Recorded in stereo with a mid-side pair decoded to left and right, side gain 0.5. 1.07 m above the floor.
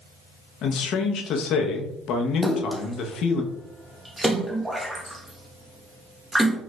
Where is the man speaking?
65° left, 0.8 m.